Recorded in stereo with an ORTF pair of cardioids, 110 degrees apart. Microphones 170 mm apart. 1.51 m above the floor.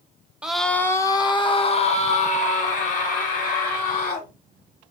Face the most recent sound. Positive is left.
turn(degrees=55)